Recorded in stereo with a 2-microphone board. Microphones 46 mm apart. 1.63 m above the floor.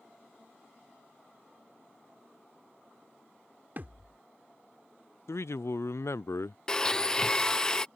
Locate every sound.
3.8 s a thud: 40° right (ahead or behind)
5.3 s a man speaking: 75° left (ahead or behind)
6.7 s a blender: 15° left (ahead or behind)